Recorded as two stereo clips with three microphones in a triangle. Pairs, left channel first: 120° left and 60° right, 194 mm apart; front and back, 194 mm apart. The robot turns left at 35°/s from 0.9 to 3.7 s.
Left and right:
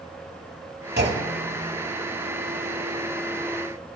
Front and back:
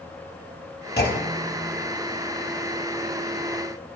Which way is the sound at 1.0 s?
30° right.